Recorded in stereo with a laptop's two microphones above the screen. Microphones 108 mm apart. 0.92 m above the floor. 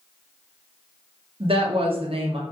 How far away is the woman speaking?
About 0.6 m.